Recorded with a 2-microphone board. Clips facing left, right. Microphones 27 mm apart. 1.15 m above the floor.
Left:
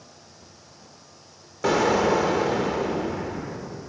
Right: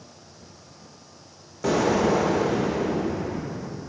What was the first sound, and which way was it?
An explosion, 15° left (ahead or behind).